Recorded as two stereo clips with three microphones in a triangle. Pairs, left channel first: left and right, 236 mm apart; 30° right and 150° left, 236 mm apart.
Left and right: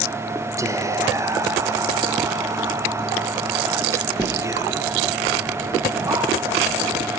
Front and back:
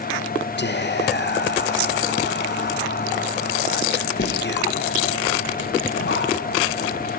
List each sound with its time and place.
0.6 s whispering: 15° right, 0.6 m